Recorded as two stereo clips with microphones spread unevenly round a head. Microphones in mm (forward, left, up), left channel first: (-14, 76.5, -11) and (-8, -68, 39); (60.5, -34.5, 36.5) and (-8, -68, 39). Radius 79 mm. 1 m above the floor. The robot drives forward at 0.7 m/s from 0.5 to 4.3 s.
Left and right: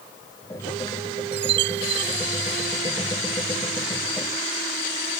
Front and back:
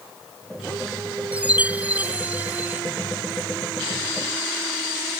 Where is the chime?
80° right; by 2.8 s 85° right.